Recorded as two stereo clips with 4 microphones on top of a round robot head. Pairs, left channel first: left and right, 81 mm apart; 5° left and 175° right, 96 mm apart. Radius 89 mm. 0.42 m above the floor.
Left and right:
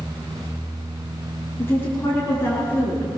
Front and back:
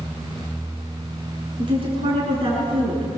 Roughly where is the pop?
No pop in this recording.